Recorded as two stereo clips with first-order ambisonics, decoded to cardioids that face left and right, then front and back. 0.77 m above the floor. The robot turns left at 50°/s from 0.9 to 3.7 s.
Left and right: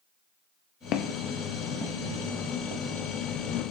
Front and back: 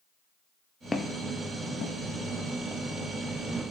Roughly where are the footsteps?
Left.